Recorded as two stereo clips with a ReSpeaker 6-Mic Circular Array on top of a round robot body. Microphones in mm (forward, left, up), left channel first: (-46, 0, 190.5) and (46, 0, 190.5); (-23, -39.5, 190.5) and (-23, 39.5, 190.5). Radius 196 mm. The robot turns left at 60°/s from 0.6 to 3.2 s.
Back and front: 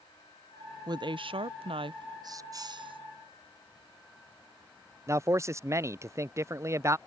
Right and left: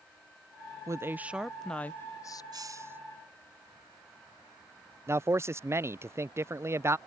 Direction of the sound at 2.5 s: 50° left.